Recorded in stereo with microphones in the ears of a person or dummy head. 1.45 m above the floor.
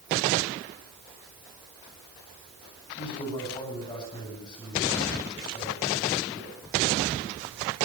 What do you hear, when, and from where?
3.0 s a man speaking: 25° left (ahead or behind), 9.5 m